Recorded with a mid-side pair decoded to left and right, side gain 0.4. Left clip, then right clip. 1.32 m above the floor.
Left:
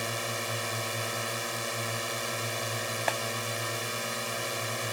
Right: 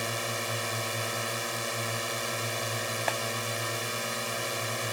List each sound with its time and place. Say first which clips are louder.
0.0 s a drone: right 1 dB; 5° right
3.1 s a clap: left 1 dB; 10° left